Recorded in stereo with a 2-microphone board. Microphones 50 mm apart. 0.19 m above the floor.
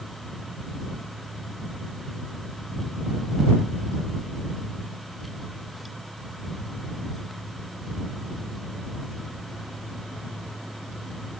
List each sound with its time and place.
Only background noise.